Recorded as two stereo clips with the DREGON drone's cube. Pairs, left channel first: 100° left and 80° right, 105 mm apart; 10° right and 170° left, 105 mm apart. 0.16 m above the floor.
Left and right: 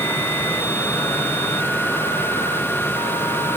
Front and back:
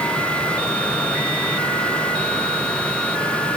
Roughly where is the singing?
No singing in this recording.